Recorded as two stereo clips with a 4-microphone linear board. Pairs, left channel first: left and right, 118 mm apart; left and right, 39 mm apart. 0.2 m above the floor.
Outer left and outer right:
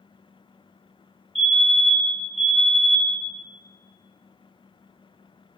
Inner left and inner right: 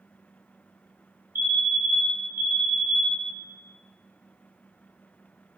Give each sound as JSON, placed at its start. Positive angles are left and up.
{"t": 1.4, "sound": "a fire alarm", "side_deg": -60, "distance_m": 5.0}